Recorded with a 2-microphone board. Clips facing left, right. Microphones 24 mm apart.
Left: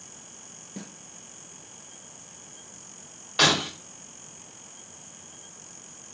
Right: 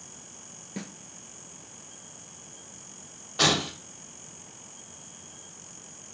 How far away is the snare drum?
About 1.1 m.